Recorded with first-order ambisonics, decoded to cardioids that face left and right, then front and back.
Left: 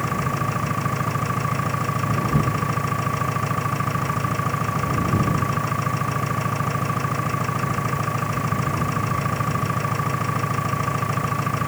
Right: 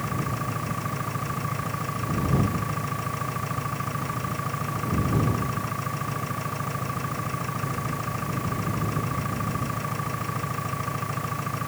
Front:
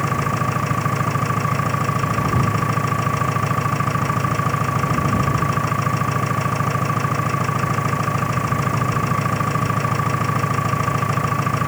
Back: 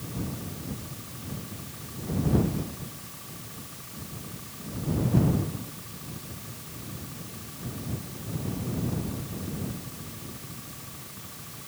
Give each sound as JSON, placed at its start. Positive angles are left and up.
{"t": 0.0, "sound": "an engine running", "azimuth_deg": 20}